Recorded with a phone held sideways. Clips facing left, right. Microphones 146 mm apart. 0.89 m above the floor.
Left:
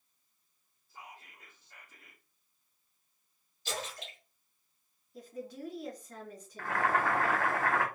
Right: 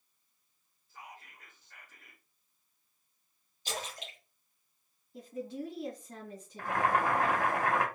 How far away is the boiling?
About 0.9 m.